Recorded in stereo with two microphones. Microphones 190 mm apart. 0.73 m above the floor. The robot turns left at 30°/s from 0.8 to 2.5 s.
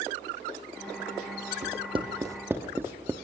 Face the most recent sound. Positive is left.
turn(degrees=-10)  # may be behind; listen again after turning